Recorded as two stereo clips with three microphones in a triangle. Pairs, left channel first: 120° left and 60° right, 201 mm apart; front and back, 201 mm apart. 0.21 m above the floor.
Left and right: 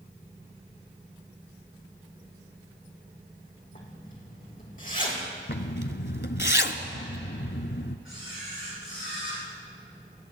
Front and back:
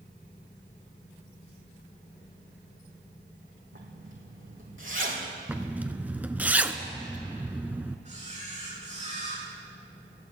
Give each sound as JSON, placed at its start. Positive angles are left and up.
{"t": 3.7, "sound": "a zipper", "azimuth_deg": 170, "distance_m": 4.0}
{"t": 5.5, "sound": "a zipper", "azimuth_deg": 100, "distance_m": 0.9}
{"t": 8.1, "sound": "a camera shutter", "azimuth_deg": 125, "distance_m": 8.0}